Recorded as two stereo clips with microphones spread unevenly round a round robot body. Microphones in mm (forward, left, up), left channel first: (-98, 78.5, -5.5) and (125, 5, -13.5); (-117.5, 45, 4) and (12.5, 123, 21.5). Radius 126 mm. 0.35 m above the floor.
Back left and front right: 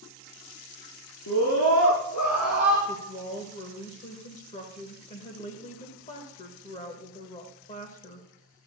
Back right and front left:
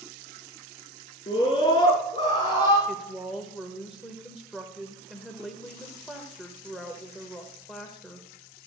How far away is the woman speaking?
About 1.3 m.